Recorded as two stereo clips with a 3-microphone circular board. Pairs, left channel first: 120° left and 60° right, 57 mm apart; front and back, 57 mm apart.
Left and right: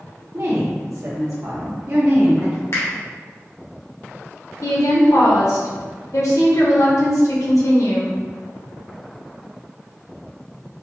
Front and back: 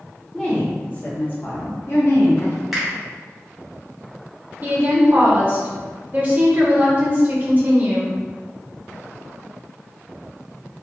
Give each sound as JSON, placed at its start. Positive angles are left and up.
{"t": 0.3, "sound": "a woman speaking", "azimuth_deg": -75, "distance_m": 1.3}
{"t": 2.7, "sound": "a finger snap", "azimuth_deg": 95, "distance_m": 1.3}
{"t": 4.6, "sound": "a woman speaking", "azimuth_deg": 120, "distance_m": 1.2}